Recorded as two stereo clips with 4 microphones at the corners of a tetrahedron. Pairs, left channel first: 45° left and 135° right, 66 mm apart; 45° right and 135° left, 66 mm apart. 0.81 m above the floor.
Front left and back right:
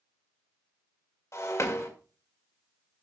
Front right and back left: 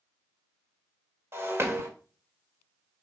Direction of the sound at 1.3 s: 85° left.